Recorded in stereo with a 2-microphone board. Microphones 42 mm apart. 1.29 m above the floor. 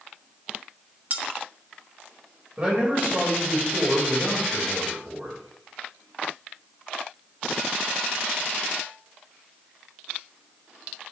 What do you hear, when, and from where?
1.1 s cutlery clinking: 40° right (ahead or behind), 1.4 m
2.6 s a man speaking: 30° right (ahead or behind), 7.5 m